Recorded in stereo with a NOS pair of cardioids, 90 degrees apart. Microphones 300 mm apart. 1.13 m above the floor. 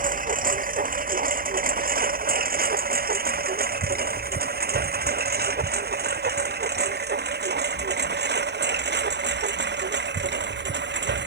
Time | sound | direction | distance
0.0 | a lawn mower | 25° right | ?